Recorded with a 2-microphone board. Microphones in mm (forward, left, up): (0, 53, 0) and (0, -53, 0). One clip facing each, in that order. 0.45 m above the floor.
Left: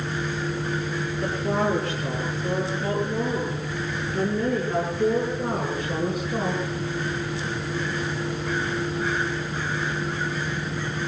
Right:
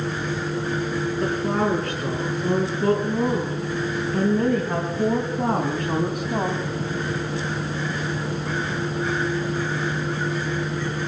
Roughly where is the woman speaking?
Right.